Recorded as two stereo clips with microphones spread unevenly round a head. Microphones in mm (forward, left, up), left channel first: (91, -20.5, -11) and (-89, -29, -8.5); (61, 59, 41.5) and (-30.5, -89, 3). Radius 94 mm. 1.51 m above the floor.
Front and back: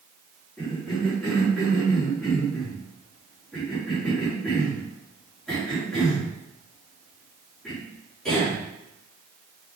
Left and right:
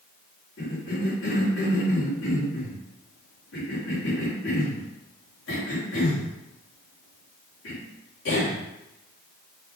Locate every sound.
0.6 s a cough: 90° left, 4 m